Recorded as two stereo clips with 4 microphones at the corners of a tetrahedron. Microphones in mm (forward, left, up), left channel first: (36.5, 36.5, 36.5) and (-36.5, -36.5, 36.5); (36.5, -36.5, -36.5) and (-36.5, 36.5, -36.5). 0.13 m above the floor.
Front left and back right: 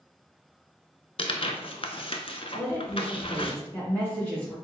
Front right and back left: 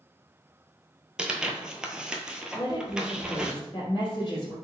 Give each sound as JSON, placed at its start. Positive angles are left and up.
{"t": 1.2, "sound": "tearing paper", "azimuth_deg": 55, "distance_m": 0.6}
{"t": 2.5, "sound": "a woman speaking", "azimuth_deg": -30, "distance_m": 1.9}